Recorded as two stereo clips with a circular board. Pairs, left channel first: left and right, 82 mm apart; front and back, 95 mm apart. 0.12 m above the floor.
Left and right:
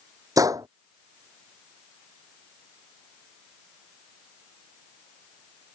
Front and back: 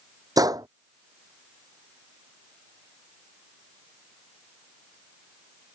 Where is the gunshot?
130° right.